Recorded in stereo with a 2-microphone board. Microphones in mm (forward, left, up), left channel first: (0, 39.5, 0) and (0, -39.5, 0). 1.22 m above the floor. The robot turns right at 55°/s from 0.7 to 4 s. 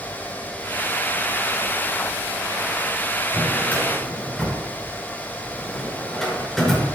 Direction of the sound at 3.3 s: 40° left (ahead or behind).